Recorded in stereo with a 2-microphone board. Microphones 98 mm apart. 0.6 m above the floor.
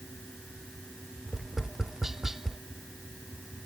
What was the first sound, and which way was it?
Tapping, 5° right (ahead or behind).